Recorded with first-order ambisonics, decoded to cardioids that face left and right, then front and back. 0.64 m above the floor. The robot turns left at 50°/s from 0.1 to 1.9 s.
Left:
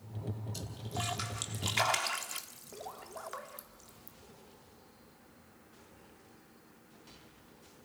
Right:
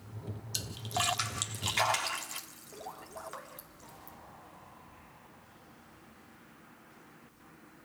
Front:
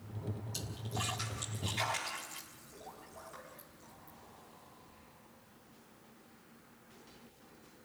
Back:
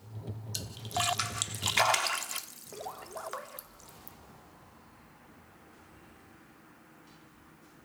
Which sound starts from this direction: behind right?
A splash, at 0.5 s.